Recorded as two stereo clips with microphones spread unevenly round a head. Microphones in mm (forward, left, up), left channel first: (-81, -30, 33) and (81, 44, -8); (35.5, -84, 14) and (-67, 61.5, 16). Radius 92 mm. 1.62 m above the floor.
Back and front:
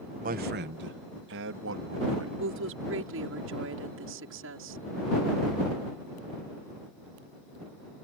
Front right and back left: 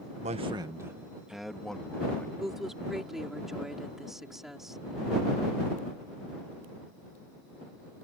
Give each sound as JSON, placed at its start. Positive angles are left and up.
{"t": 0.2, "sound": "a man speaking", "azimuth_deg": 70}
{"t": 2.4, "sound": "a woman speaking", "azimuth_deg": 35}